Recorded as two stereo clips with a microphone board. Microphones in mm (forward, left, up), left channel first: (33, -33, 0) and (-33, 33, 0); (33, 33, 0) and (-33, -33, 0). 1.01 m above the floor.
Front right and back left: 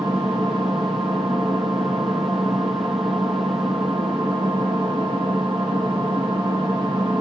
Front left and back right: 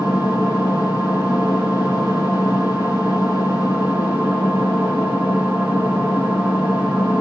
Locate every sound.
0.0 s an engine running: 155° left, 1.2 m